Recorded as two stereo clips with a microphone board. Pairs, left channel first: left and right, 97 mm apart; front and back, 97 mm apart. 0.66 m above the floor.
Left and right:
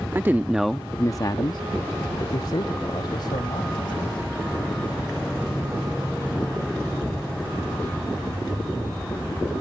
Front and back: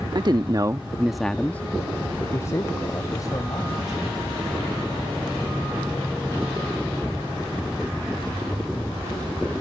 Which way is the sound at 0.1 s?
150° right.